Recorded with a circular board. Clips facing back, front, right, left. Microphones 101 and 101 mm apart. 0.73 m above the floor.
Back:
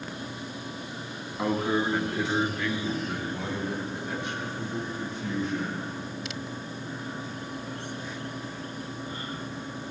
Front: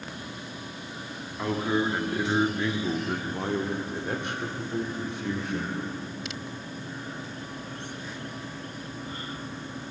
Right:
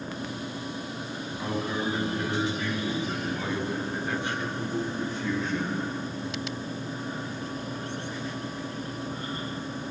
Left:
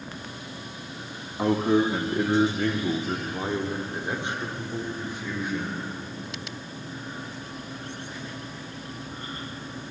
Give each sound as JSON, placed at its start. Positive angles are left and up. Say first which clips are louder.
{"t": 1.4, "sound": "a man speaking", "louder": "even, left 9 dB", "azimuth_deg": 105, "distance_m": 1.2}